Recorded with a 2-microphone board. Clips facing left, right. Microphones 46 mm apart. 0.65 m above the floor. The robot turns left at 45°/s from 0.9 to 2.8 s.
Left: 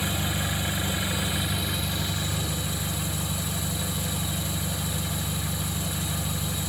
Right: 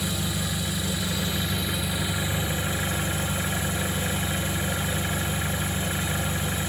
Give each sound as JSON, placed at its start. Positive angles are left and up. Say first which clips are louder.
{"t": 0.0, "sound": "an engine running", "louder": "left 1 dB", "azimuth_deg": 30, "distance_m": 0.8}